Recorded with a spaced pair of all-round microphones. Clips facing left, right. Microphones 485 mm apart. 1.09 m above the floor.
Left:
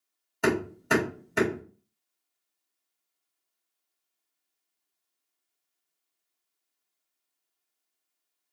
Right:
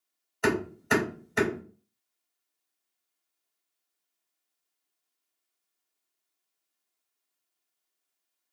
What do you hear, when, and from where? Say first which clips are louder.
0.4 s hammering: left 1 dB; 45° left (ahead or behind), 1.9 m